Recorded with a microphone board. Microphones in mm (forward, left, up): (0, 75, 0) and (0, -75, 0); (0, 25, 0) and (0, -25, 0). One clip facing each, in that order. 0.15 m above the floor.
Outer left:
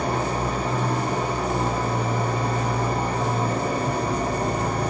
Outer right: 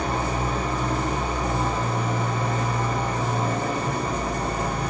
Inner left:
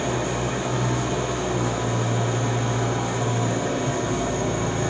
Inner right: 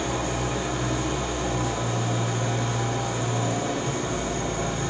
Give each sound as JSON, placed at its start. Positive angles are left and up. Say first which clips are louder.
{"t": 0.0, "sound": "an engine running", "louder": "outer left 1 dB, inner left 2 dB", "side_deg": 35, "distance_m": 2.5}